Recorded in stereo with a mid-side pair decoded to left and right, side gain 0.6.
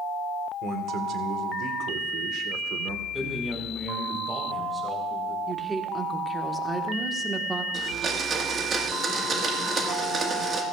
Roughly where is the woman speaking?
Ahead.